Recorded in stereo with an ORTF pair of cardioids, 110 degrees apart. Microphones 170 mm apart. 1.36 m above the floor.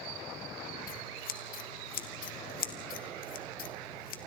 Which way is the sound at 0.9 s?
60° left.